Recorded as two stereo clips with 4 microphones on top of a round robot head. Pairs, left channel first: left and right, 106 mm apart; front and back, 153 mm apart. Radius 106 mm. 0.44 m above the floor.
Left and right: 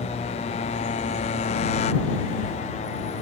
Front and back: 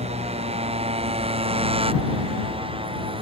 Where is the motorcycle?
135° left; by 3.2 s 125° left.